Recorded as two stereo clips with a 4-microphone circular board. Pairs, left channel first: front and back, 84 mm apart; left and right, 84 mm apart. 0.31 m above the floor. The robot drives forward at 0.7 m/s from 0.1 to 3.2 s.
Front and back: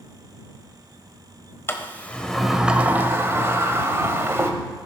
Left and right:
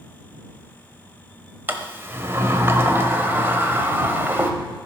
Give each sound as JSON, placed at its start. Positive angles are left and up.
{"t": 1.7, "sound": "a sliding door", "azimuth_deg": -40, "distance_m": 1.0}